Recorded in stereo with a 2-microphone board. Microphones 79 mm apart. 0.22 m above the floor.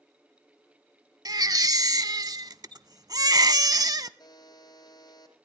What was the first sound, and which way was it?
A baby crying, 55° right (ahead or behind).